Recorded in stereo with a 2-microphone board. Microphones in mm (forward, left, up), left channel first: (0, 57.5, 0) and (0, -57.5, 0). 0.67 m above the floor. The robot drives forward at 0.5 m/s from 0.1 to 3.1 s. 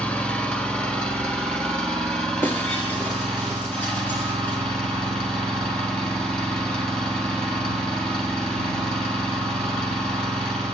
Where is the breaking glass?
20° left (ahead or behind), 4 m.